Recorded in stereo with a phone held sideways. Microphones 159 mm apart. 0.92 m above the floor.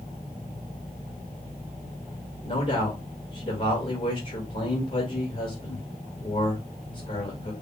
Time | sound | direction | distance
2.4 | a man speaking | 50° left (ahead or behind) | 2.5 m